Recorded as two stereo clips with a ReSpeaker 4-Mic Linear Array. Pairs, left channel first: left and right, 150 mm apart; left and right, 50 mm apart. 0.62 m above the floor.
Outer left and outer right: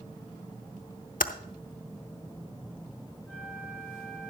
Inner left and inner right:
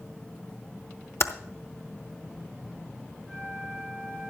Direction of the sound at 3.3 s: 15° left (ahead or behind).